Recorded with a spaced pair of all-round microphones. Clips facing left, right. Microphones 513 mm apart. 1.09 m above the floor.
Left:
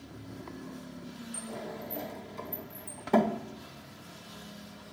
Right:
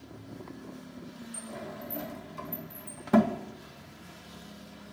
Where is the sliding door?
30° right (ahead or behind), 1.3 m.